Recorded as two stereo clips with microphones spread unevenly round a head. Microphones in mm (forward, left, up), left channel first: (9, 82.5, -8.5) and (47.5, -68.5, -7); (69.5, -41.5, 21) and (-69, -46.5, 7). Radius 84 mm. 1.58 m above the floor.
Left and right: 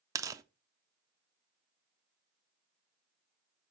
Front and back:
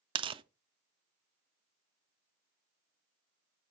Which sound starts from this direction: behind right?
Tearing paper, at 0.1 s.